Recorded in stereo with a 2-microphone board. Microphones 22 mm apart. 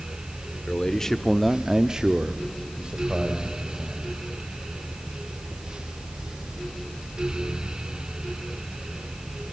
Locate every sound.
0.7 s a man speaking: 30° left (ahead or behind), 1.7 m; by 4.0 s 50° right (ahead or behind), 4 m